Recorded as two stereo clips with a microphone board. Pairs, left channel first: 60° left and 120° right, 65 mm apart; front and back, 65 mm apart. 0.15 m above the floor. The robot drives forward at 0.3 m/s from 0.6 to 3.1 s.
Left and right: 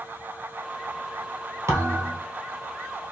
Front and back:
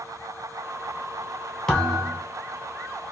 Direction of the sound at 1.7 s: 80° right.